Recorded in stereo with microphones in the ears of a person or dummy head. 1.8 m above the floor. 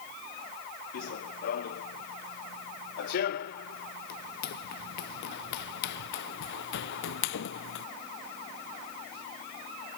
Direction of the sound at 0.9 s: 55° left (ahead or behind).